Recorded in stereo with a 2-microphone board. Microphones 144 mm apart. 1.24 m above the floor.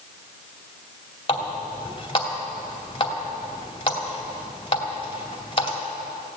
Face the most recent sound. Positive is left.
turn(degrees=35)  # may be behind; listen again after turning